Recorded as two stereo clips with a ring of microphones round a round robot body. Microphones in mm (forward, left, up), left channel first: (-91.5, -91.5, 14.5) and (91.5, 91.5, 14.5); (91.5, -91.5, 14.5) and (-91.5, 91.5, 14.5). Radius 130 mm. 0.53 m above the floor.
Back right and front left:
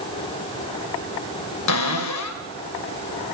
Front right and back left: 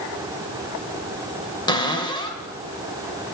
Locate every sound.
1.7 s a cupboard door: 115° right, 2.5 m